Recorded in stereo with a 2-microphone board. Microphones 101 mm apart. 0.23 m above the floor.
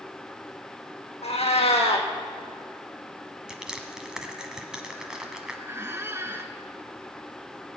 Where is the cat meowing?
85° left, 1.9 m.